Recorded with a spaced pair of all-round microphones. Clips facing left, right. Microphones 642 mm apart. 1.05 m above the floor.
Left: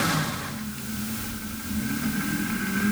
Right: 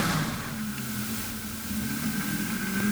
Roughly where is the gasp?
No gasp in this recording.